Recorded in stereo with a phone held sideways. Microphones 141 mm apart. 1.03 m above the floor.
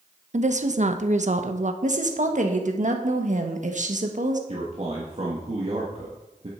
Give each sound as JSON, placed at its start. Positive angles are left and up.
{"t": 0.3, "sound": "a woman speaking", "side_deg": -60, "distance_m": 0.9}
{"t": 1.8, "sound": "a woman speaking", "side_deg": -60, "distance_m": 1.4}
{"t": 4.5, "sound": "a man speaking", "side_deg": -50, "distance_m": 1.5}